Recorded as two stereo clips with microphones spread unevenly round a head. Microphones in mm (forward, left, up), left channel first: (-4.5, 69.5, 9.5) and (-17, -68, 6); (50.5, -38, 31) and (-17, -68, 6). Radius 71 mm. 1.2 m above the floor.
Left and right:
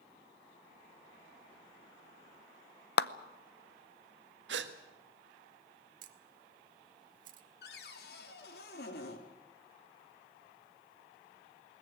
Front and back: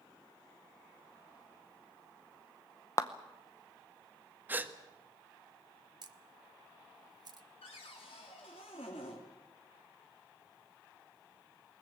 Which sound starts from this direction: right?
A gasp, at 4.5 s.